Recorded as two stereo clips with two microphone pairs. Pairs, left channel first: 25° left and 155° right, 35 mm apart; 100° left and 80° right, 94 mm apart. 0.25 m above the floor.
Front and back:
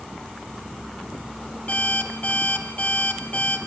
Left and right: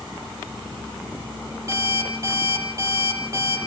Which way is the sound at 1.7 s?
25° right.